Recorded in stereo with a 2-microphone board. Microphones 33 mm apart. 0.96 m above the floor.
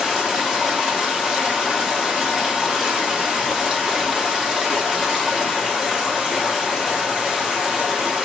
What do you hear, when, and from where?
0.0 s running water: 20° right (ahead or behind), 1.6 m